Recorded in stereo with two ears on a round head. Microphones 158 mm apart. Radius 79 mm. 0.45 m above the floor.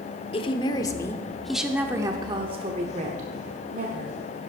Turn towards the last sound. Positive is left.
turn(degrees=-60)  # may be behind; listen again after turning